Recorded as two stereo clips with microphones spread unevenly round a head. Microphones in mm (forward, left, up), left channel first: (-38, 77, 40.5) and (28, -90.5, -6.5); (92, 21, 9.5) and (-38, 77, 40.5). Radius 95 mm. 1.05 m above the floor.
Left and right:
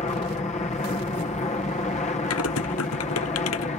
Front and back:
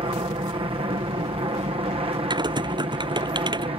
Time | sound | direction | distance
0.0 | an aircraft | 145° left | ?
2.3 | typing on a keyboard | 95° left | ?